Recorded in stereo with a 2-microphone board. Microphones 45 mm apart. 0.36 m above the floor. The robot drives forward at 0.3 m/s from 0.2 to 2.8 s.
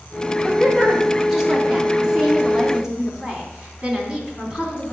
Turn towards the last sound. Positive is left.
turn(degrees=-10)  # may be behind; listen again after turning